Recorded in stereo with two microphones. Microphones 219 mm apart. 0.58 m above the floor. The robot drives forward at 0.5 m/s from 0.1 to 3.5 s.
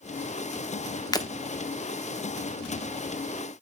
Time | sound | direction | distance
1.1 | breaking glass | 15° left (ahead or behind) | 0.6 m